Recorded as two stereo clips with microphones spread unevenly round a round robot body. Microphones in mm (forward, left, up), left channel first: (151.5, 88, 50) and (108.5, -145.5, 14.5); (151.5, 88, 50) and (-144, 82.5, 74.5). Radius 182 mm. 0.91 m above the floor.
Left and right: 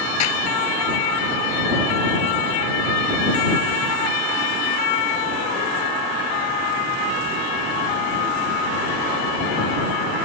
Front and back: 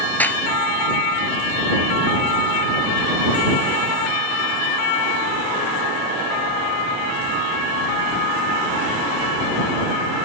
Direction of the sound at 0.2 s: 85° left.